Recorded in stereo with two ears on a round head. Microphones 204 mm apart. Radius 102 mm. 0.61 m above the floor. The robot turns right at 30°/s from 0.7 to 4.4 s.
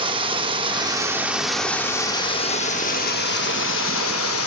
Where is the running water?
25° right, 0.7 m; by 4.5 s 85° left, 0.7 m.